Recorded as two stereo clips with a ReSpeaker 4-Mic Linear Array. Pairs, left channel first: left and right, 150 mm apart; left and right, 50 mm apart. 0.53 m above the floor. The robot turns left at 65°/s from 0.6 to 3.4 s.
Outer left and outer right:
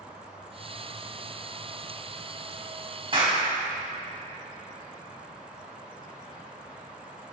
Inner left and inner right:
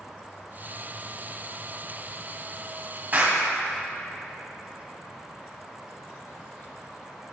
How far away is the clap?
About 3.5 m.